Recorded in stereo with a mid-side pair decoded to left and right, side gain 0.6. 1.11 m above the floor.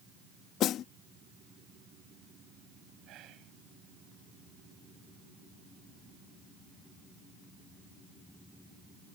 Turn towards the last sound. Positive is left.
turn(degrees=-60)